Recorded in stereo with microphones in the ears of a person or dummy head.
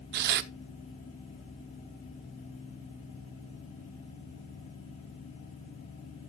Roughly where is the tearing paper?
Right.